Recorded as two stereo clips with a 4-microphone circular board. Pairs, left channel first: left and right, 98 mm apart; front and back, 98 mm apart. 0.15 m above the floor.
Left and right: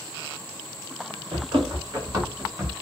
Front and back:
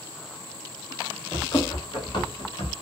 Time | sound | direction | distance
1.3 | running footsteps | 50° right | 2 m